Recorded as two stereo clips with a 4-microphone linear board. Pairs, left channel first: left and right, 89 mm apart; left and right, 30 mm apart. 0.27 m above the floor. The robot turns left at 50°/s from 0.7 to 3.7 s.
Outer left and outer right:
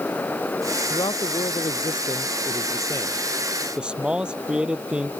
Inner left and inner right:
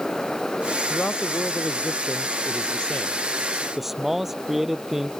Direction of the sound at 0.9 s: 130° left.